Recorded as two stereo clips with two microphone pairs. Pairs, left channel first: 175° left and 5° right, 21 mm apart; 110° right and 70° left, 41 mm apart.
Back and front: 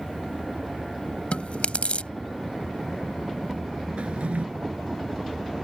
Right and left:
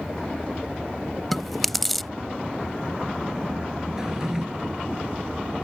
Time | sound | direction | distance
1.3 | chewing | 165° left | ?
4.0 | a drawer | 5° right | ?